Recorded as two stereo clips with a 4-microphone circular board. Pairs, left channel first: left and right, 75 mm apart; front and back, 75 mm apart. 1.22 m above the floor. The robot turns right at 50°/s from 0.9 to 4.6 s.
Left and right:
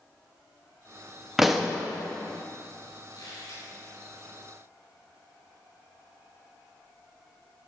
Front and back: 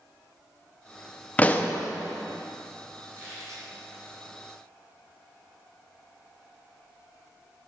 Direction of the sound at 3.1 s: 115° left.